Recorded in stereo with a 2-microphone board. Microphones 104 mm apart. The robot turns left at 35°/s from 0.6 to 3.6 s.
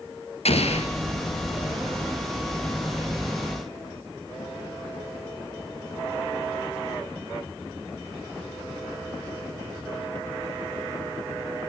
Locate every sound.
0.5 s an explosion: 80° left, 3 m